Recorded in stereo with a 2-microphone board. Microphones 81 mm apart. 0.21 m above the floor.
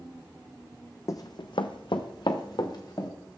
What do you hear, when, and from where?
1.1 s running footsteps: 40° left (ahead or behind), 0.6 m; by 3.1 s 50° left (ahead or behind), 1.7 m